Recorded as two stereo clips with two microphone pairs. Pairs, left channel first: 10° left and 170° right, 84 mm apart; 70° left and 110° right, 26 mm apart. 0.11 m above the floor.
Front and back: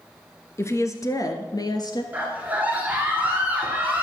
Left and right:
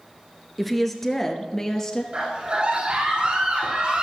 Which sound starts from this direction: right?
A scream, at 2.1 s.